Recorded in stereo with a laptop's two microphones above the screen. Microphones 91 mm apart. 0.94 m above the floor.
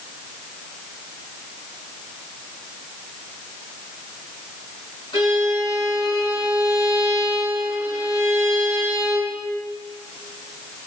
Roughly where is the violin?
Left.